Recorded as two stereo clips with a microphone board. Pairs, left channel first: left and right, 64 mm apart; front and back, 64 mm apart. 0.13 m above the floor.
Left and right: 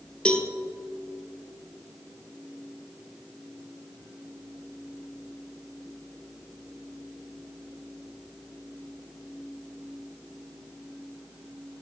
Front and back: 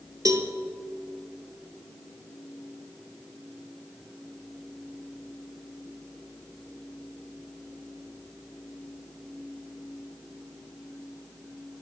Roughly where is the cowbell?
Behind.